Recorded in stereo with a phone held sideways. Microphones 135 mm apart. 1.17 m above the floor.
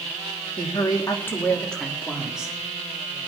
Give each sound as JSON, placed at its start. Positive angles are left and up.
{"t": 0.6, "sound": "a woman speaking", "side_deg": 40, "distance_m": 2.0}